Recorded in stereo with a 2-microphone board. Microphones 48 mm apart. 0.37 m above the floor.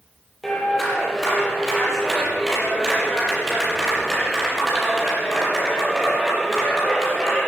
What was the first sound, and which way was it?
A clap, 5° left (ahead or behind).